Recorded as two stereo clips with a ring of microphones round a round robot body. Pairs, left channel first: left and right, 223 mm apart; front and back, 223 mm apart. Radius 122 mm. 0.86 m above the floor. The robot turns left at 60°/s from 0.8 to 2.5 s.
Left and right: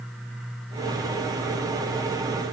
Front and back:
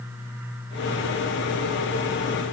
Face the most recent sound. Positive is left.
No sound to turn to.